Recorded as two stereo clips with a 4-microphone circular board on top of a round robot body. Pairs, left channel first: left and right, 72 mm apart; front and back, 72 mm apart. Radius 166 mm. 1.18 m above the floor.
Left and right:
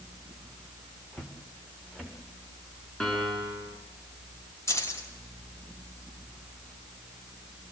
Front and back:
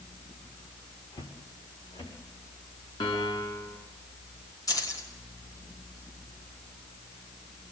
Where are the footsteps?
5° right, 6 m.